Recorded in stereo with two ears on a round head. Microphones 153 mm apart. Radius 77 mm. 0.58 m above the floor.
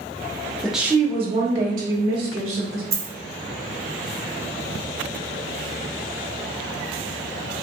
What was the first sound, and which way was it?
A woman speaking, 5° left (ahead or behind).